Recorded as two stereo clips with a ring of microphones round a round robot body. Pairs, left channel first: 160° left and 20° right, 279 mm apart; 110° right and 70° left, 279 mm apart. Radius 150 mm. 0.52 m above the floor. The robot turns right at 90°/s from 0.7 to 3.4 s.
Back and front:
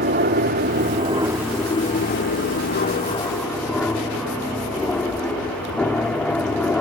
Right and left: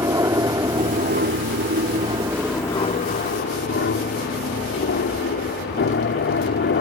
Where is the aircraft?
Straight ahead; by 6.8 s 120° right.